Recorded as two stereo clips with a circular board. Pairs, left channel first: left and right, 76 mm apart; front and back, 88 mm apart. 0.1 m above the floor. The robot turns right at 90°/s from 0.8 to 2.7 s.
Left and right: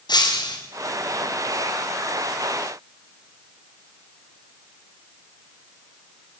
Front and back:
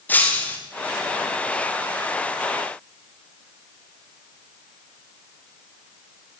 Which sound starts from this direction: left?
Breaking glass, at 0.1 s.